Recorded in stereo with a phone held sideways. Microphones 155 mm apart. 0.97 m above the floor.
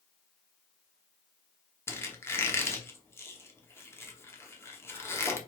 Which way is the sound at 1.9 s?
15° left (ahead or behind).